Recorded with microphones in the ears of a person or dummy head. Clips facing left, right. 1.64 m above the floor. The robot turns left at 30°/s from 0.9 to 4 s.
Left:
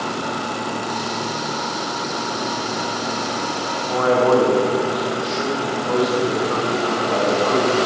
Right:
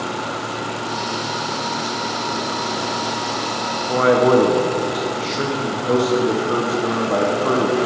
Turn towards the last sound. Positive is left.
turn(degrees=-40)  # may be behind; listen again after turning